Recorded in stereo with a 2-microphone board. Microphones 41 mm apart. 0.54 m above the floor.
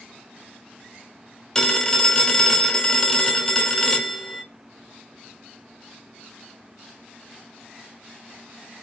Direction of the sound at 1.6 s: 15° left (ahead or behind).